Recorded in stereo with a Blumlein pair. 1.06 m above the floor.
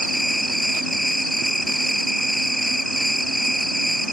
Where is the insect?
Straight ahead.